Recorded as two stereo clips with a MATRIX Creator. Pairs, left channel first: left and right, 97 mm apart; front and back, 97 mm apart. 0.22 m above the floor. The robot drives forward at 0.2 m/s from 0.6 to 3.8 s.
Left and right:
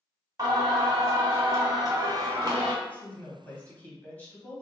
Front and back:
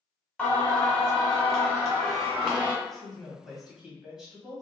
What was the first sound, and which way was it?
Singing, 75° right.